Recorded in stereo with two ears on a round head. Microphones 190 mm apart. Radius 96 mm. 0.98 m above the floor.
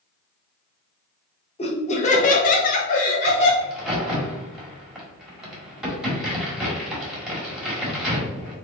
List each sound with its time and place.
1.6 s laughter: 30° left (ahead or behind), 1.0 m; by 3.5 s 35° left (ahead or behind), 0.8 m
3.6 s a crack: 5° right (ahead or behind), 1.2 m